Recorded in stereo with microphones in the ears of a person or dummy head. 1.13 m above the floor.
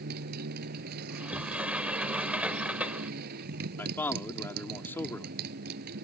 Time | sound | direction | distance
0.0 | a motorcycle | 55° right (ahead or behind) | ?
1.1 | a sliding door | 10° right (ahead or behind) | ?
3.8 | a man speaking | 10° left (ahead or behind) | ?